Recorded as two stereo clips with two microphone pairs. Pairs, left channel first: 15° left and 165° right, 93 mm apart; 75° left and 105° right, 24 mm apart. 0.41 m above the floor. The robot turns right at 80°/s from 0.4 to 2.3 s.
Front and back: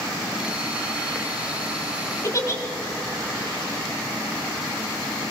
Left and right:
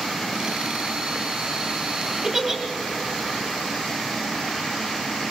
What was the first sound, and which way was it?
A giggle, 40° right.